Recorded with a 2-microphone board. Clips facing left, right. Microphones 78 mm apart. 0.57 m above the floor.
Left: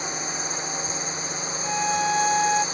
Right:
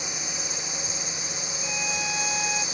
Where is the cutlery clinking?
No cutlery clinking in this recording.